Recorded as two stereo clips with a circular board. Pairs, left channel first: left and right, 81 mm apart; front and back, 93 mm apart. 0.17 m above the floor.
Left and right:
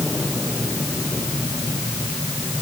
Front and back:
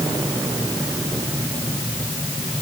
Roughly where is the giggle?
No giggle in this recording.